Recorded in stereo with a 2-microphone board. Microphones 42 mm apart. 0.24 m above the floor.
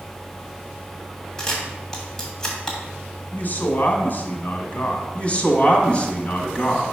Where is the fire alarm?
No fire alarm in this recording.